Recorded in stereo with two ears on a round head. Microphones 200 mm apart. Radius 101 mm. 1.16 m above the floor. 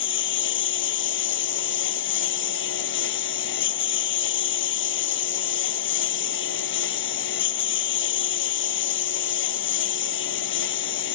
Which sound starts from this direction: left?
A lawn mower, at 0.0 s.